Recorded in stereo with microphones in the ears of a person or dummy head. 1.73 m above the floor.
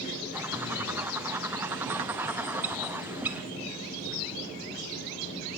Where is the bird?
10° right (ahead or behind), 0.6 m.